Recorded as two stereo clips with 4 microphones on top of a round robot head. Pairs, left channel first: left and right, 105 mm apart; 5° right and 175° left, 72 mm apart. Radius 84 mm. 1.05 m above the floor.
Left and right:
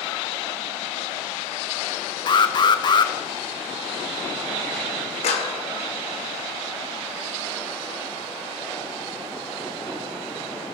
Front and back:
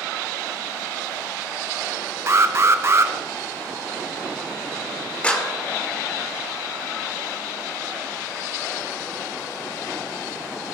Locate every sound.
2.3 s an alarm: 130° left, 1.2 m
5.2 s a clap: 70° left, 2.5 m